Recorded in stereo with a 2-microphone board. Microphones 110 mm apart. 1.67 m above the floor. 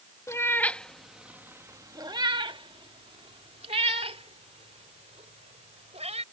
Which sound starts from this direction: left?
A cat meowing, at 0.3 s.